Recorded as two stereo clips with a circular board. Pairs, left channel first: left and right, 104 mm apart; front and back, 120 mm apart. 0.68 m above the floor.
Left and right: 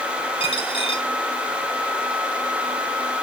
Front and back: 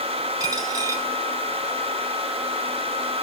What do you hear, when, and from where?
0.4 s a dropped coin: 120° left, 2 m